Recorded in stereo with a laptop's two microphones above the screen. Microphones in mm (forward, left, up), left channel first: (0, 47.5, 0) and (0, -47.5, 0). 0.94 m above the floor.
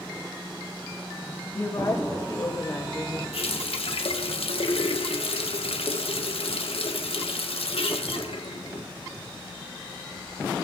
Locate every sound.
1.6 s a woman speaking: 45° left (ahead or behind), 5 m; by 3.2 s 15° left (ahead or behind), 5 m
3.3 s a running tap: 85° left, 1.6 m